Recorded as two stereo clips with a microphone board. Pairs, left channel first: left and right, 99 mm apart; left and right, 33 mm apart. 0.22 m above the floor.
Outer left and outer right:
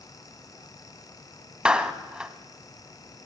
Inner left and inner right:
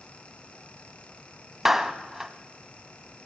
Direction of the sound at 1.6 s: 10° right (ahead or behind).